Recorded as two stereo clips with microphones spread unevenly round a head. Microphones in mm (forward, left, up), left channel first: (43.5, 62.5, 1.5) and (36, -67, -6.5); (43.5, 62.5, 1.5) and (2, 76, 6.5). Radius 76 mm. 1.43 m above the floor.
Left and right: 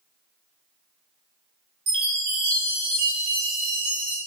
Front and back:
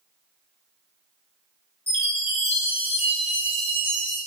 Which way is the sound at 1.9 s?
75° right.